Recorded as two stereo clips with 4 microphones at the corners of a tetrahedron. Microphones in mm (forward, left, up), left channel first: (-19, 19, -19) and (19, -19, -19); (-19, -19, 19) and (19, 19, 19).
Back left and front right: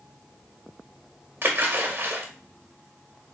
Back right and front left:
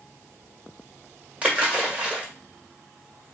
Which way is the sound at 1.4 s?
15° right.